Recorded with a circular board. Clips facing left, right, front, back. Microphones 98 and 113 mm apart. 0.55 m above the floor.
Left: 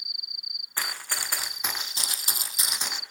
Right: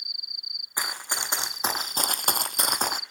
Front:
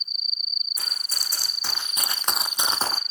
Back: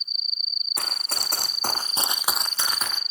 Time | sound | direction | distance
0.8 | running footsteps | 165° right | 2 m